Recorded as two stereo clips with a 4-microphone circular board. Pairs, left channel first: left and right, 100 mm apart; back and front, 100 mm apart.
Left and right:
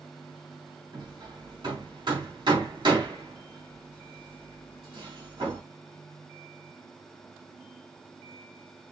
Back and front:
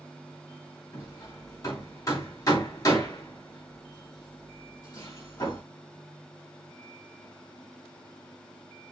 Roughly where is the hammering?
Behind right.